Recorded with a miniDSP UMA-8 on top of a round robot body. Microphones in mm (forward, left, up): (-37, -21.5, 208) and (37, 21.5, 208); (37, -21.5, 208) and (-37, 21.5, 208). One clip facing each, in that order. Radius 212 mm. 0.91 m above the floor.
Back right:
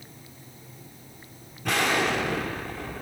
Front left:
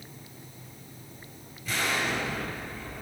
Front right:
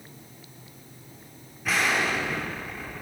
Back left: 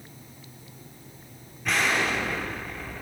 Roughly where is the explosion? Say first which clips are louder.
Back right 5 dB, even; behind right.